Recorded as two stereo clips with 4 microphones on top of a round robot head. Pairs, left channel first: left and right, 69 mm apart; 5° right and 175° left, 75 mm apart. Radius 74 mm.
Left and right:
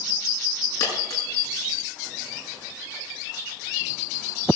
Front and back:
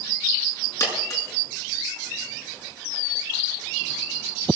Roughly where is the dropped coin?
Ahead left.